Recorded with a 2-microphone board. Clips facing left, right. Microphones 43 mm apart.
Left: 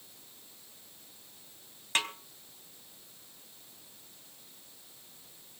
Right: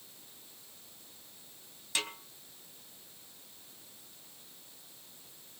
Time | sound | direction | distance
1.9 | a snare drum | 45° left (ahead or behind) | 3 m